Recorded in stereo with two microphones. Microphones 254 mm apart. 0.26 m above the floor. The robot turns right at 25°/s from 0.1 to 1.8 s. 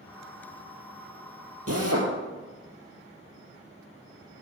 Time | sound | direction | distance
1.7 | a drill | 65° right (ahead or behind) | 2.5 m